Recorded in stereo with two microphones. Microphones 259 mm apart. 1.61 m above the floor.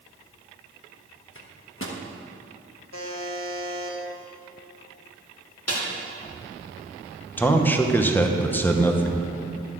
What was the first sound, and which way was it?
A microwave, 50° left (ahead or behind).